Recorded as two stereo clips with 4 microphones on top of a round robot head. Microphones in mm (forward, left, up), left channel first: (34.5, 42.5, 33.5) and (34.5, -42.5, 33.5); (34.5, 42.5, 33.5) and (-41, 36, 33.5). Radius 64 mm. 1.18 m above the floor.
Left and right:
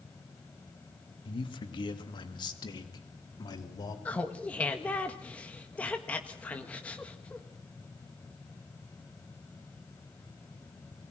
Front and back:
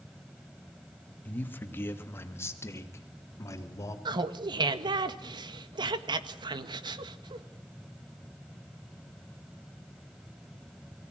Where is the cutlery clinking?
No cutlery clinking in this recording.